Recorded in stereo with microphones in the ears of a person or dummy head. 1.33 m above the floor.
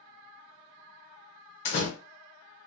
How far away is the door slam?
About 0.7 m.